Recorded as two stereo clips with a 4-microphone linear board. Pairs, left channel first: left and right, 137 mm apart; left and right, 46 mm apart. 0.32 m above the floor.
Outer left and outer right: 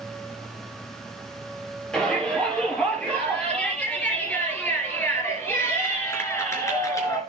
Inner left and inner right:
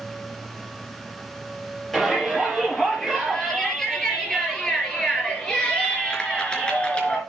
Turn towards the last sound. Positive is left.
turn(degrees=25)  # may be behind; listen again after turning